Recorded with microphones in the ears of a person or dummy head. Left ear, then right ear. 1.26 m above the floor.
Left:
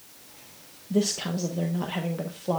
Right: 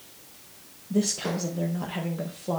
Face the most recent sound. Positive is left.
turn(degrees=15)  # may be behind; listen again after turning